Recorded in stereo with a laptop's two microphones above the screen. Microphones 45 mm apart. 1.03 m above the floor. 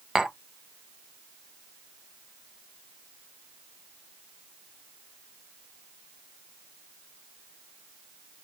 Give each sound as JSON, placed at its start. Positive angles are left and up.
{"t": 0.1, "sound": "tapping", "side_deg": -15, "distance_m": 1.0}